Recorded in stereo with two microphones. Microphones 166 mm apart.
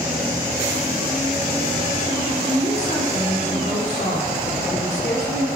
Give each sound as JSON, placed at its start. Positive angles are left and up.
{"t": 2.5, "sound": "a woman speaking", "side_deg": 50, "distance_m": 2.5}